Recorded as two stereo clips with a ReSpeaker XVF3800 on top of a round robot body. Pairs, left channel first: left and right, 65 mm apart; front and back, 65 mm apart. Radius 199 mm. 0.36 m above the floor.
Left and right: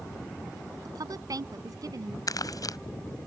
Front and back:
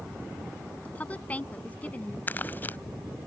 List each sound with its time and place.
0.8 s a woman speaking: 70° right
2.3 s crumpling: 60° left